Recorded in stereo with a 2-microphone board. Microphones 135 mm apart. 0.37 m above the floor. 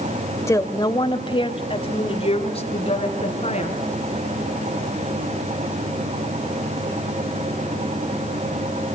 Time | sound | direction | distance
0.5 | a woman speaking | 20° left (ahead or behind) | 1.2 m